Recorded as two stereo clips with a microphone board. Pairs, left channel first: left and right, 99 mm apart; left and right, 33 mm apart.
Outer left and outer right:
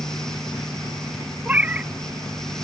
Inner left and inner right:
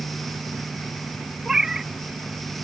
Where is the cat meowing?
15° right (ahead or behind).